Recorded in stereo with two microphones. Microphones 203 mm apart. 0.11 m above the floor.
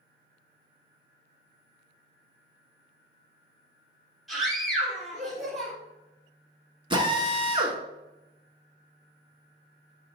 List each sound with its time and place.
4.3 s a scream: centre (ahead or behind), 3 m
6.9 s a drill: 25° right (ahead or behind), 1.1 m